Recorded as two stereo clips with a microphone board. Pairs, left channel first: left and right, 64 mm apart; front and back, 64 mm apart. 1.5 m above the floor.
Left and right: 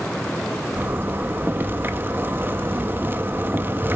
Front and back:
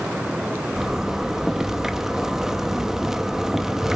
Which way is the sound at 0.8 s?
105° right.